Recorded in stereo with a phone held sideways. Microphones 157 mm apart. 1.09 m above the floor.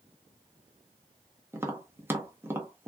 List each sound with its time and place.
1.5 s tapping: 15° right (ahead or behind), 0.7 m